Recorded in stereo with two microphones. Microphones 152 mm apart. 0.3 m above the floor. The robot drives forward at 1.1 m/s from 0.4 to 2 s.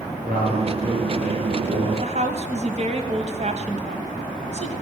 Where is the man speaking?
75° right (ahead or behind), 5.5 m; by 1.9 s 65° right (ahead or behind), 6 m.